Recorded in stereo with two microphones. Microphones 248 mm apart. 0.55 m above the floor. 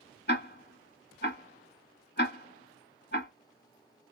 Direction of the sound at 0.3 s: 45° left (ahead or behind).